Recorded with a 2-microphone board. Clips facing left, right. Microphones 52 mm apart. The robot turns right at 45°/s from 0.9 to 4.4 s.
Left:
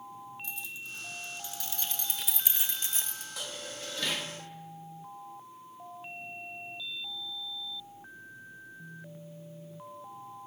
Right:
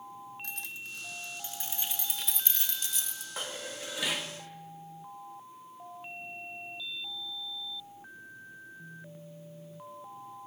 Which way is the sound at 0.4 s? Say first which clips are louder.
Even; 60° right (ahead or behind).